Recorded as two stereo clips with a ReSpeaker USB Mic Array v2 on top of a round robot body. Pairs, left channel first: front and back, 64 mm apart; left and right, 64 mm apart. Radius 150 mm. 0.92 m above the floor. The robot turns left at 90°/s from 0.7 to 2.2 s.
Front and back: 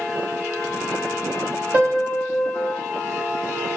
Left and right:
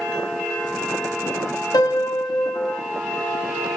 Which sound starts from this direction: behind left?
A piano, at 1.7 s.